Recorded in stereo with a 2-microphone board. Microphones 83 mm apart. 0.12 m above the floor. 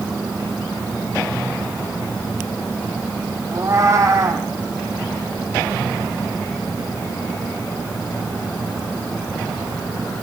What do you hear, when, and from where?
3.5 s a cat meowing: 40° right (ahead or behind), 1.8 m